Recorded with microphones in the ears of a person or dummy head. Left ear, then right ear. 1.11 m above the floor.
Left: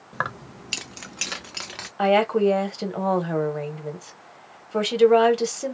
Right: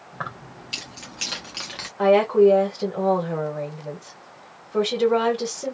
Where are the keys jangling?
65° left (ahead or behind), 0.6 m; by 1.9 s 20° left (ahead or behind), 1.1 m.